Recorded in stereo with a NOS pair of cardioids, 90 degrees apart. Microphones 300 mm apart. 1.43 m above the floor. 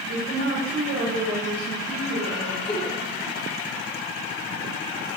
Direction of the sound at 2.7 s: 20° left.